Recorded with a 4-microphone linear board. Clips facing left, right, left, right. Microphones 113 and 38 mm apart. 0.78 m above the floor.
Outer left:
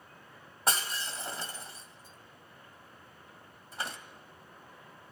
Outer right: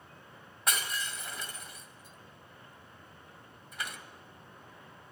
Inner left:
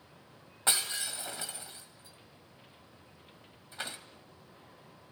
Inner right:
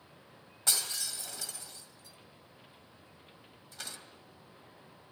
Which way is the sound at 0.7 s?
30° left (ahead or behind).